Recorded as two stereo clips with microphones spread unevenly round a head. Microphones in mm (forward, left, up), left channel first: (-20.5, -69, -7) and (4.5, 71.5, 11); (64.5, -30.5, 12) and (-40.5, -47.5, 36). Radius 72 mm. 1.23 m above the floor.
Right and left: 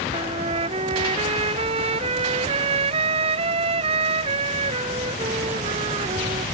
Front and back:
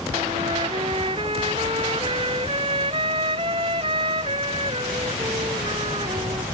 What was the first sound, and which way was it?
A trumpet, 130° left.